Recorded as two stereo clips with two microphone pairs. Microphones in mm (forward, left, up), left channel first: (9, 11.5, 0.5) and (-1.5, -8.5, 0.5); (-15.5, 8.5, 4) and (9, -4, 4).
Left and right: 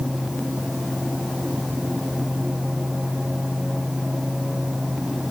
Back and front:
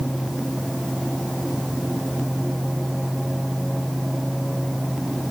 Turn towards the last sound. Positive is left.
No sound to turn to.